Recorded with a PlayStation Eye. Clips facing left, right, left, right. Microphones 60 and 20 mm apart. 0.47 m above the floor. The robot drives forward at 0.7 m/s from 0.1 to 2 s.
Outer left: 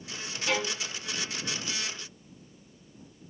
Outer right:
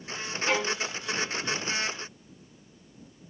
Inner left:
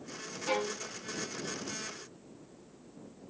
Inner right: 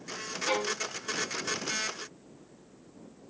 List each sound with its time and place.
0.5 s a violin: 25° right (ahead or behind), 1.4 m